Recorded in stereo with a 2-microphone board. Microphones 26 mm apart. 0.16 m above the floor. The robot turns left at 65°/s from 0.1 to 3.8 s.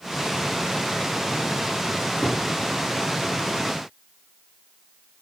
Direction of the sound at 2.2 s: 25° left (ahead or behind).